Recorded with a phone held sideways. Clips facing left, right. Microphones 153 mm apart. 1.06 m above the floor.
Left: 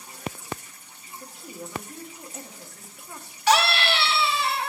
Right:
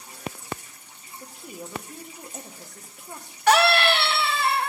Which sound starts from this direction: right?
A scream, at 3.5 s.